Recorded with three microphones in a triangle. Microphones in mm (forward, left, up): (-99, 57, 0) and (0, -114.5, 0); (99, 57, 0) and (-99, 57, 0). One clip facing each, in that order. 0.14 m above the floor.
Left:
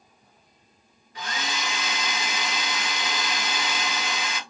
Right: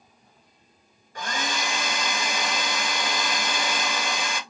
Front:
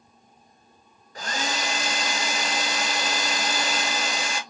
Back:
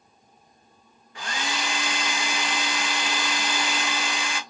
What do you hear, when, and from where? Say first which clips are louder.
1.1 s a hair dryer: right 3 dB, front 2 dB; 35° right, 1.2 m